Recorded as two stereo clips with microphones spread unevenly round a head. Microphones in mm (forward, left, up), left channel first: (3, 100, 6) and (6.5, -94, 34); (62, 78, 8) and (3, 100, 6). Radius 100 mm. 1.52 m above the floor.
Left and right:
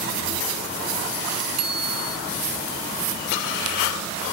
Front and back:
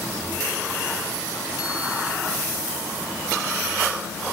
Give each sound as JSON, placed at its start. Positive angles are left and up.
{"t": 1.6, "sound": "a bicycle bell", "azimuth_deg": -90}